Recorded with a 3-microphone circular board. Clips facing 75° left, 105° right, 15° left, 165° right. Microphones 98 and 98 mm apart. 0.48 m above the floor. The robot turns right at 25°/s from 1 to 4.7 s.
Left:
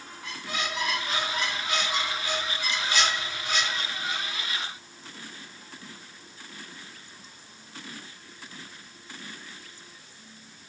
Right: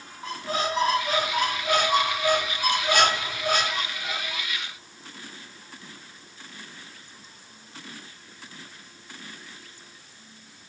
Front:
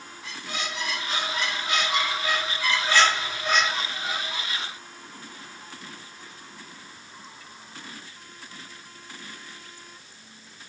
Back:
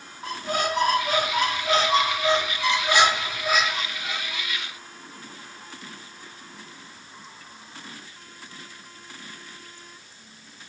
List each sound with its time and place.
0.2 s a squeak: 145° right, 0.5 m; by 4.5 s 60° right, 0.5 m